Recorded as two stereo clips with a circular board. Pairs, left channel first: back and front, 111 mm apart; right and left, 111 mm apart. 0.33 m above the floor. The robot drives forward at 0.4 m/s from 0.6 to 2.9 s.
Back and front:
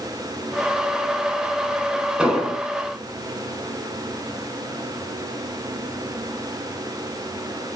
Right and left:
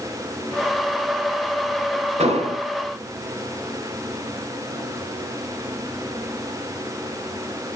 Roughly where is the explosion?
Left.